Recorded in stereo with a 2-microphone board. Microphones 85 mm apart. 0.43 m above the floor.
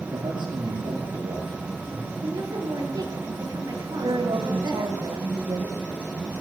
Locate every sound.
0.1 s a man speaking: 60° right (ahead or behind), 9.5 m
2.2 s a woman speaking: 45° right (ahead or behind), 8 m
4.0 s a woman speaking: 70° right (ahead or behind), 3 m